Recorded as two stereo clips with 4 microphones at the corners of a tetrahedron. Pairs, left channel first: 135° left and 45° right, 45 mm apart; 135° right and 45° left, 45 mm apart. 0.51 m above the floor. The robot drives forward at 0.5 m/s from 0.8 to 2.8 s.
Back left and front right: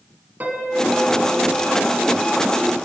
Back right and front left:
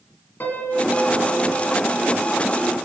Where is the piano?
95° right, 1.6 m; by 1.6 s 110° right, 1.7 m.